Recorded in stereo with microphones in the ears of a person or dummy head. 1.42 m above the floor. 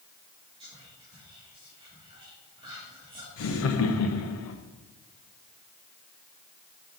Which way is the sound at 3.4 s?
80° left.